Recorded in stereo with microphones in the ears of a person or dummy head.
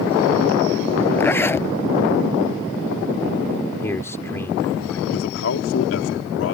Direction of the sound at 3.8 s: 10° left (ahead or behind).